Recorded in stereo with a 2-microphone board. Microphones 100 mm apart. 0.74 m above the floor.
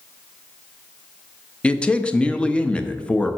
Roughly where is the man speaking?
Centre.